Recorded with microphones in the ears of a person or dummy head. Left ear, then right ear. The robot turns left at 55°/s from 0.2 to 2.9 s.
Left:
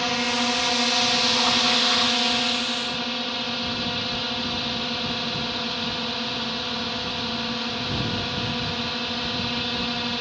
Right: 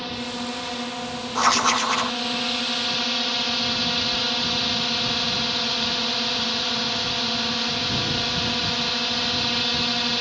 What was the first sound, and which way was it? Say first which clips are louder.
A drone: left 7 dB; 130° left.